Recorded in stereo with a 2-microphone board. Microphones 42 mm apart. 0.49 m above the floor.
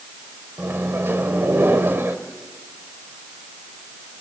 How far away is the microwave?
About 1.6 m.